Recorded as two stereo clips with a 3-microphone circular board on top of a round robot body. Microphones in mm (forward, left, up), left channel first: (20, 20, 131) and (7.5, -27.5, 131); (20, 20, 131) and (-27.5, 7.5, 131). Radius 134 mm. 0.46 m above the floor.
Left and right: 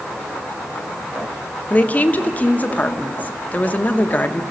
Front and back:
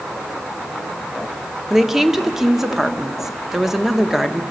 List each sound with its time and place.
1.7 s a woman speaking: 115° left, 1.2 m